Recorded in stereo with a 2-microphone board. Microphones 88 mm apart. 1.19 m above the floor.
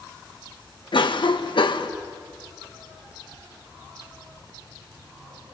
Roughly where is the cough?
Left.